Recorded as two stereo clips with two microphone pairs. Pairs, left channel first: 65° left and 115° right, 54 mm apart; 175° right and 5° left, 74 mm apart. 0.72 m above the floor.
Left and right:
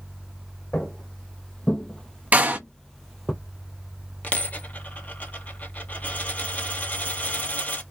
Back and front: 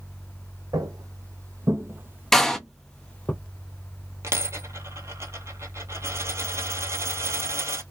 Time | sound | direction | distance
0.7 | footsteps | 5° right | 1.4 m
2.3 | a door slam | 95° right | 0.6 m
4.2 | a dropped coin | 25° left | 1.0 m